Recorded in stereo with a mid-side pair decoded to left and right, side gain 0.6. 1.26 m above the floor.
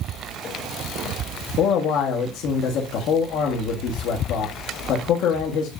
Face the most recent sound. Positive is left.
turn(degrees=65)